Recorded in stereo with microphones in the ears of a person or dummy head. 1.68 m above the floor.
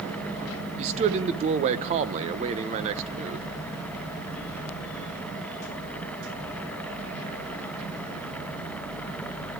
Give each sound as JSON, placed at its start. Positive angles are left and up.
{"t": 0.8, "sound": "a man speaking", "side_deg": -35, "distance_m": 1.0}